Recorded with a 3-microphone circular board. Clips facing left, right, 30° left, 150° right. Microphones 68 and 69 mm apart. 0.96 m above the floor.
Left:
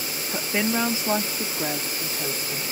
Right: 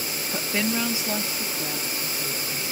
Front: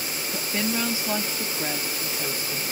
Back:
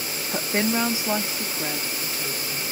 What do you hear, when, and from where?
0.3 s a woman speaking: 175° left; by 2.6 s 95° left